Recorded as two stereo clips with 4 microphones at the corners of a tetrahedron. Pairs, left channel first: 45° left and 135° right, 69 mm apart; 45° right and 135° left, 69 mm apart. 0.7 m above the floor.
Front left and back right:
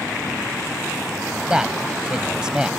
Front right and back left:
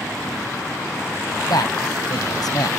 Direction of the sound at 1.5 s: 60° right.